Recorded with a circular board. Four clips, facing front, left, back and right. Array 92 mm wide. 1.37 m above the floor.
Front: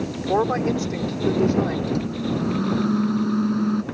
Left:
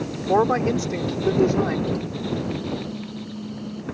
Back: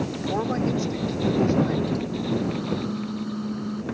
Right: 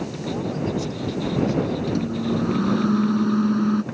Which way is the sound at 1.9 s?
60° right.